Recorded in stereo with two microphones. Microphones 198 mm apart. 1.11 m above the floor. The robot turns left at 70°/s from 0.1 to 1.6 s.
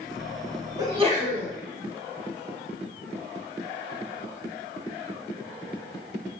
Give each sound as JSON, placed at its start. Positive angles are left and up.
{"t": 0.8, "sound": "a sneeze", "azimuth_deg": -20, "distance_m": 1.2}